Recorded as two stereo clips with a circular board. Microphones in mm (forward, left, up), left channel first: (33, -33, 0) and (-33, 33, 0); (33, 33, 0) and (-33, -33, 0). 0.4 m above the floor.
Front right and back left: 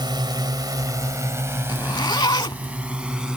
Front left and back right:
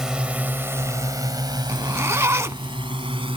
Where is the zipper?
80° right.